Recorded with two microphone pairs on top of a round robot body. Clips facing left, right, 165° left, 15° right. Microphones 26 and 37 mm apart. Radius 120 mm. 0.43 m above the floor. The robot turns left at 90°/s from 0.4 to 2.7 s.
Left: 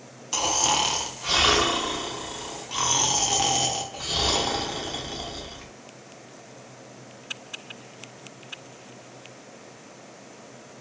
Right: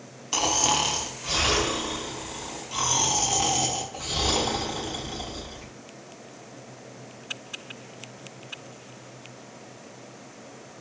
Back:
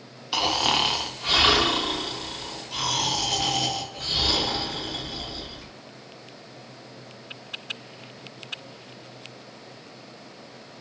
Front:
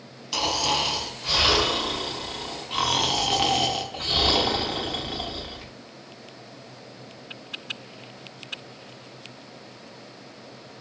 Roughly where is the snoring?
Behind right.